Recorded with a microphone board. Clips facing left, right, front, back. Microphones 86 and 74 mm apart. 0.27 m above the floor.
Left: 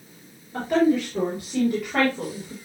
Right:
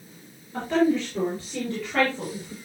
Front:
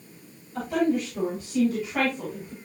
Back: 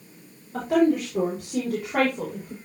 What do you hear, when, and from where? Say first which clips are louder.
0.5 s a woman speaking: left 2 dB, back 4 dB; 170° left, 6.5 m; by 2.5 s 160° left, 6.5 m